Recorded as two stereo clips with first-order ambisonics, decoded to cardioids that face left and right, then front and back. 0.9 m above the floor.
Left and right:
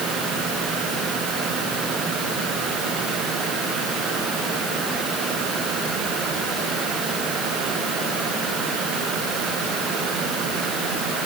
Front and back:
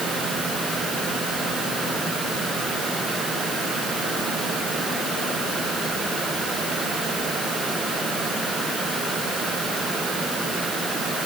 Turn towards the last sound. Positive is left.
No sound to turn to.